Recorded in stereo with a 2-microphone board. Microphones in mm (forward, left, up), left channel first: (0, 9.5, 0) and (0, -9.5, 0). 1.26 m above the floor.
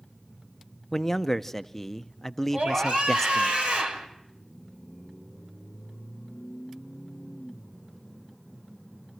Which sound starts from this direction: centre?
A man speaking, at 0.9 s.